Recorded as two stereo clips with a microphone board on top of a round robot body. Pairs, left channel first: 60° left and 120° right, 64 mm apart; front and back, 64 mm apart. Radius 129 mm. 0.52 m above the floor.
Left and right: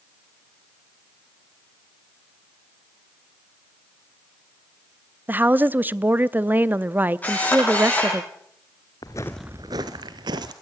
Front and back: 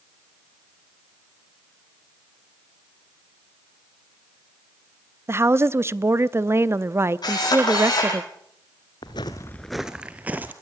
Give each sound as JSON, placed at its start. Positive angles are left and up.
{"t": 5.3, "sound": "a woman speaking", "azimuth_deg": -165, "distance_m": 0.9}
{"t": 7.2, "sound": "a camera shutter", "azimuth_deg": -10, "distance_m": 8.5}
{"t": 9.0, "sound": "footsteps", "azimuth_deg": 20, "distance_m": 0.6}